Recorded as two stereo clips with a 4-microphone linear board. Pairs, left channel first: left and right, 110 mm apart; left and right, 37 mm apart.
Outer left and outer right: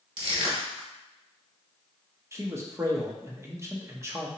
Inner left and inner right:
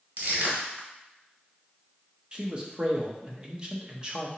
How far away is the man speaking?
About 0.7 m.